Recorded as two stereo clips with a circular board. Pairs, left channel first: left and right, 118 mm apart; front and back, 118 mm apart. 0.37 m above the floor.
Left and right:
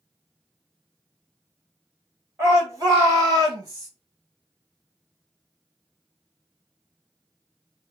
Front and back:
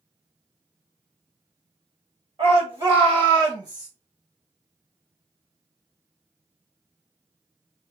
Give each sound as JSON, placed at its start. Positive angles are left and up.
{"t": 2.4, "sound": "a shout", "azimuth_deg": -155, "distance_m": 2.0}